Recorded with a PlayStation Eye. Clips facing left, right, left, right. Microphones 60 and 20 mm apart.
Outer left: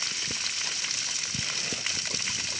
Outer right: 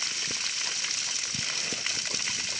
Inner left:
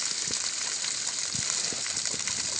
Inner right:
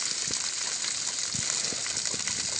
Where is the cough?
No cough in this recording.